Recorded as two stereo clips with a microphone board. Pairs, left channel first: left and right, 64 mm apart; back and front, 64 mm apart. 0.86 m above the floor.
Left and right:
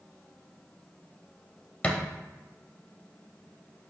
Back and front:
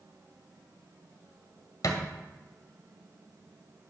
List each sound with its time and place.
1.8 s a thud: 160° left, 1.4 m